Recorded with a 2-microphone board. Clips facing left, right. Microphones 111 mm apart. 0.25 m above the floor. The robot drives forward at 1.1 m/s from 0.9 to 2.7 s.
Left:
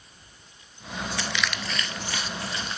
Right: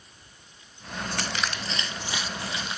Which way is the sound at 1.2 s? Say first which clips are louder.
Left 1 dB; 55° right (ahead or behind).